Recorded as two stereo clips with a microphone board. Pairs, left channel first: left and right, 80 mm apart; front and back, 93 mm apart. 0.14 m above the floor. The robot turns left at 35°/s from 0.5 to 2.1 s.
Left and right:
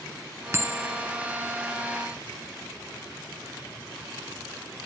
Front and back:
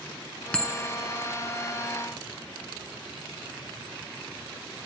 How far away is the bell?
About 1.8 m.